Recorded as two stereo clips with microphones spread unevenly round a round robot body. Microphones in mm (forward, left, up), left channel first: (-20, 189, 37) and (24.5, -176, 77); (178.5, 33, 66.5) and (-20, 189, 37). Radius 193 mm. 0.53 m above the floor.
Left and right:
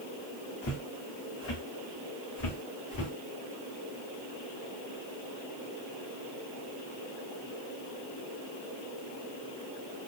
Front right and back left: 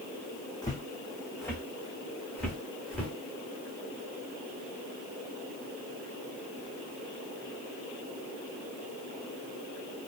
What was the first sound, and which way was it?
Footsteps, 35° left.